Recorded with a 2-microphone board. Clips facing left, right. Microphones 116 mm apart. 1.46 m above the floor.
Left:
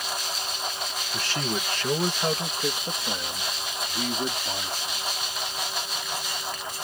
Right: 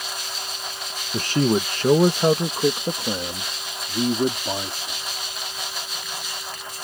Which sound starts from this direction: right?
A man speaking, at 1.1 s.